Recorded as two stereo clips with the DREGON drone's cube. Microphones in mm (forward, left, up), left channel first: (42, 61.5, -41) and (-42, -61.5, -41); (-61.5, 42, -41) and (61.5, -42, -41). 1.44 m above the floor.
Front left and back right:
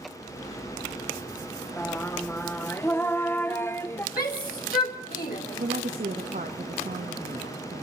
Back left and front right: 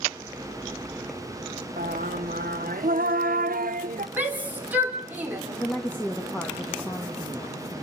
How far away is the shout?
About 4.5 m.